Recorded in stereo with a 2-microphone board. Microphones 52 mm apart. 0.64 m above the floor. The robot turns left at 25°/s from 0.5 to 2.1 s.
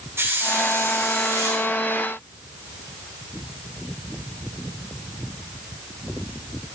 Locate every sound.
0.2 s a hiss: 55° right (ahead or behind), 6 m; by 1.6 s 80° right, 6 m